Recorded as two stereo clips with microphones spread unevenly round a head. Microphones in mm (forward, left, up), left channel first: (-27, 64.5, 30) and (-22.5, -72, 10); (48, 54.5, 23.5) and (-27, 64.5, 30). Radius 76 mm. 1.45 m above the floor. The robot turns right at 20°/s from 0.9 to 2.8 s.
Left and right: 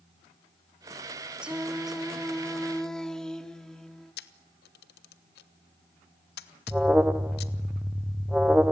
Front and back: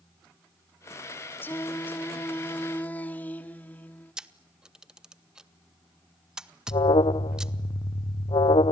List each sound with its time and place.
1.4 s singing: 10° left, 0.9 m; by 4.1 s 35° left, 0.9 m
4.2 s a camera shutter: 90° left, 1.2 m
6.7 s an alarm: 5° right, 0.8 m